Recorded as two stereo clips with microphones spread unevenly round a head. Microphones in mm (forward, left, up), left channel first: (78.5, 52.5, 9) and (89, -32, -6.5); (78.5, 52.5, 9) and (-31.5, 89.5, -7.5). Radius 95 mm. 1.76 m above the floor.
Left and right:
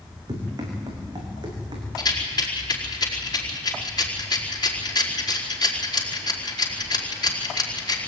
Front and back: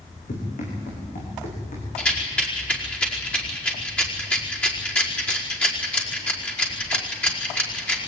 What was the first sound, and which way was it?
Running footsteps, 40° right.